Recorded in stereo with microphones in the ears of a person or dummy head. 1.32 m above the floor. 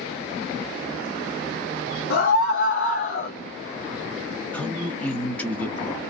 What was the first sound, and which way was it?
A scream, 80° left.